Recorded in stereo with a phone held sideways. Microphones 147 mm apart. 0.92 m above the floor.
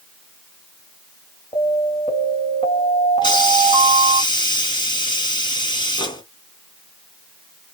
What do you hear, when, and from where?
1.5 s an alarm: 45° left (ahead or behind), 4 m
3.2 s a hiss: 35° left (ahead or behind), 2.5 m